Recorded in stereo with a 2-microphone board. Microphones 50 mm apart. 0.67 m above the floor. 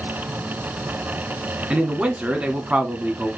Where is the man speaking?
30° right (ahead or behind), 1.2 m.